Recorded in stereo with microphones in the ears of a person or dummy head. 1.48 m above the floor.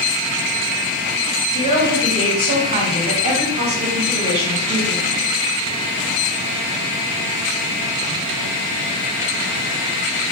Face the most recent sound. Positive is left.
turn(degrees=-30)  # may be behind; listen again after turning